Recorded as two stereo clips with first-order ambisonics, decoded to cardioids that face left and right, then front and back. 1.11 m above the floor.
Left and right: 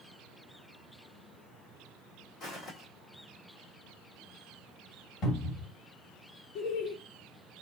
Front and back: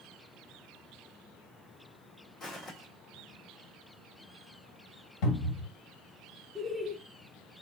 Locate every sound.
2.4 s footsteps: 50° left, 1.7 m
5.2 s a cupboard door: 35° left, 1.7 m
6.5 s laughter: 90° left, 0.6 m